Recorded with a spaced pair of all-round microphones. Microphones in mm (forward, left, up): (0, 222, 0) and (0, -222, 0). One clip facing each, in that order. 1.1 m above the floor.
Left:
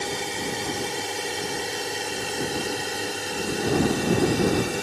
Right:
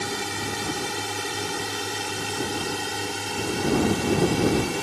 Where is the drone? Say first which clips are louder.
Left 1 dB; 25° right (ahead or behind); by 4.8 s 15° right (ahead or behind).